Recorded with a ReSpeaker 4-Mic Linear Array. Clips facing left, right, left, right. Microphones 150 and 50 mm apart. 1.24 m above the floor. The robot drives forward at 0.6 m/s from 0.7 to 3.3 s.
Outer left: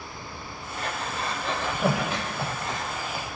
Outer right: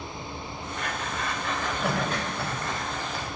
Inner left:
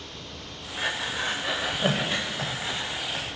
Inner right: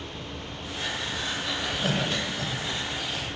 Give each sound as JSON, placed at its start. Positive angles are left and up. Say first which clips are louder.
{"t": 0.8, "sound": "breathing", "louder": "outer left 2 dB, inner left 3 dB", "side_deg": 35, "distance_m": 1.1}